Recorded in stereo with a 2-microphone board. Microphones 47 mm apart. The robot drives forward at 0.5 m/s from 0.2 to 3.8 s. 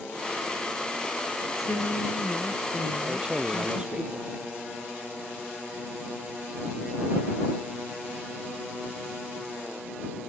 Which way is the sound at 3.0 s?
25° right (ahead or behind).